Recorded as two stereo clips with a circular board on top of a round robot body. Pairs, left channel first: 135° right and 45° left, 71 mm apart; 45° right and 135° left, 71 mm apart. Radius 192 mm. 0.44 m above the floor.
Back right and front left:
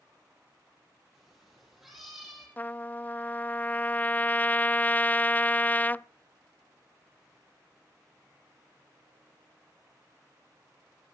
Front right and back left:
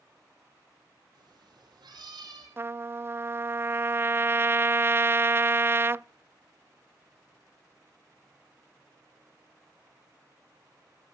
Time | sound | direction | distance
1.1 | a cat meowing | 130° left | 6.5 m
2.6 | a trumpet | 170° left | 0.5 m